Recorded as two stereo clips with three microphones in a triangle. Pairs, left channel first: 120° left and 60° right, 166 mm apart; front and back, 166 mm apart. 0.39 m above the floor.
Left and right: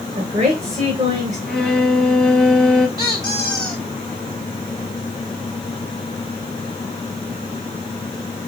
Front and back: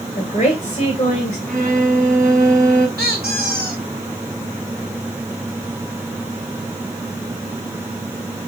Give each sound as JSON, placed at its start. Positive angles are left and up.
{"t": 0.2, "sound": "a woman speaking", "azimuth_deg": -30, "distance_m": 1.3}
{"t": 1.5, "sound": "a violin", "azimuth_deg": -155, "distance_m": 1.1}
{"t": 3.0, "sound": "a squeak", "azimuth_deg": -175, "distance_m": 1.7}